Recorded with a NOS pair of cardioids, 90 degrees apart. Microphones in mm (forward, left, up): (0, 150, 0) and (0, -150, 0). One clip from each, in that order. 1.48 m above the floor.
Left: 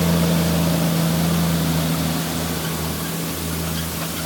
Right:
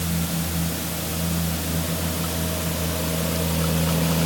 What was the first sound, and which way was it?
Only background noise.